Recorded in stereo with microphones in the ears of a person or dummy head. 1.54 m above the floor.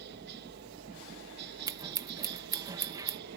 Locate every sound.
0.0 s a helicopter: 55° right (ahead or behind)
1.7 s scissors: 20° right (ahead or behind)